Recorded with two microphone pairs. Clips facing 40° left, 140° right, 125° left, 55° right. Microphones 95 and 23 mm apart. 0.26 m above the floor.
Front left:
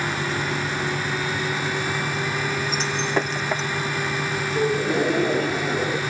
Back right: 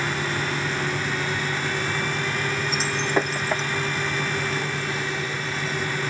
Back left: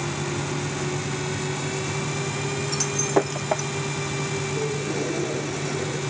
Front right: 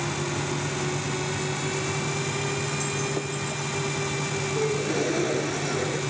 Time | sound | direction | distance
2.7 | breaking glass | 135° left | ?
4.5 | a gasp | 20° left | ?